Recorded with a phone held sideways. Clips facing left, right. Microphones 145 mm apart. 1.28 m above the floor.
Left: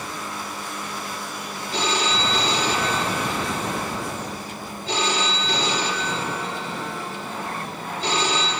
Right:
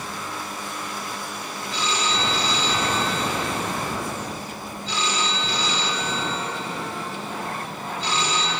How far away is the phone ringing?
About 1.9 m.